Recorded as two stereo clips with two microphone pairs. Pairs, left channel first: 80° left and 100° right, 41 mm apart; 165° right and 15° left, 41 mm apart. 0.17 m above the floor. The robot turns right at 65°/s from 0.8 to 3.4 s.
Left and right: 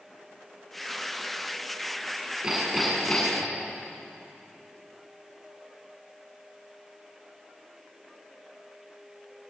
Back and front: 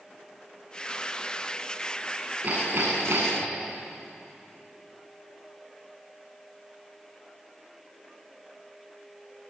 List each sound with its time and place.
2.4 s hammering: 45° right, 9 m; by 3.5 s 20° left, 9 m